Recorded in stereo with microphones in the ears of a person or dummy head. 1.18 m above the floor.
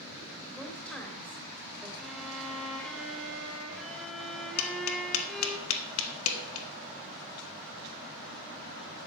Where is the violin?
Centre (ahead or behind), 1.6 m.